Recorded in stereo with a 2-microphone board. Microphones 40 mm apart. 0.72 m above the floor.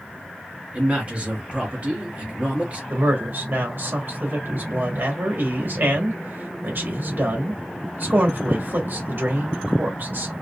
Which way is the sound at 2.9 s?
55° right (ahead or behind).